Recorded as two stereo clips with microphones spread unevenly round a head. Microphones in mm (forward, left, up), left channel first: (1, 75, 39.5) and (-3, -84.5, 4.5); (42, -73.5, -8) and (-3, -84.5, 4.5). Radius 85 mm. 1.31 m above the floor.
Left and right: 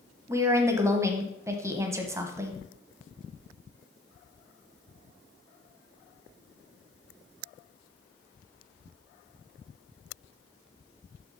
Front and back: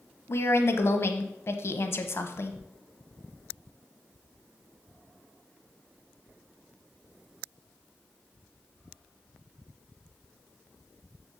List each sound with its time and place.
0.3 s a woman speaking: 15° right, 0.9 m